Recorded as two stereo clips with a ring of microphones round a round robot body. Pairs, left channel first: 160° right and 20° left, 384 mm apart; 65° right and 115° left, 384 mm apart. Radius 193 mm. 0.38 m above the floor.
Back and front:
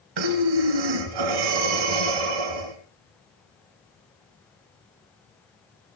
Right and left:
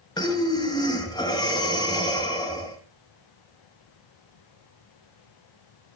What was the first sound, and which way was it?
Breathing, 10° left.